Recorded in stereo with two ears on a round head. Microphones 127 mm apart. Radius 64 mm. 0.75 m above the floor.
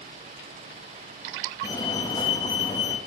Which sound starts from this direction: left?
A fire alarm, at 1.6 s.